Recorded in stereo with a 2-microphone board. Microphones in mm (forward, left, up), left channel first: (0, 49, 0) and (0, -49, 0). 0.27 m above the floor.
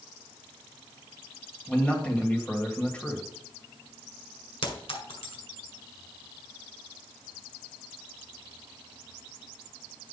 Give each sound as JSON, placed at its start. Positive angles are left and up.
{"t": 1.7, "sound": "a man speaking", "side_deg": 15, "distance_m": 1.5}
{"t": 4.6, "sound": "a clink", "side_deg": 70, "distance_m": 1.6}